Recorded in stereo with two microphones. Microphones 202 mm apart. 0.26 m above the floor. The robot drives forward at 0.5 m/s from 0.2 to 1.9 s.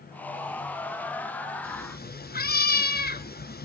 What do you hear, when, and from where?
1.6 s a cat meowing: 45° left (ahead or behind), 1.6 m; by 3.7 s 50° left (ahead or behind), 1.6 m